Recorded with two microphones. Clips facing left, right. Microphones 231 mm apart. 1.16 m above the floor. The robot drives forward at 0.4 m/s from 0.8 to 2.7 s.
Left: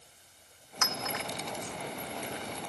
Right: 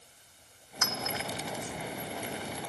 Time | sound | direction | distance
0.8 | a clink | 85° left | 2.5 m